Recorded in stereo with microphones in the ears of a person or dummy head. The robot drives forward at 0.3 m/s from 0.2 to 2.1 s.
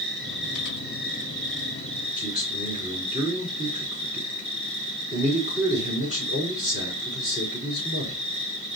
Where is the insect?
Centre (ahead or behind), 2.5 m.